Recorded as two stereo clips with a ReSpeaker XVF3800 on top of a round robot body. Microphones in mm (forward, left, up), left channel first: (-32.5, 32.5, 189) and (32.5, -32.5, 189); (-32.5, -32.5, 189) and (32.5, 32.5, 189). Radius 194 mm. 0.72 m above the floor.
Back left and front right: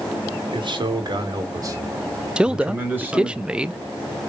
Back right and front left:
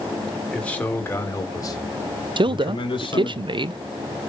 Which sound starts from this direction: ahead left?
A man speaking, at 2.4 s.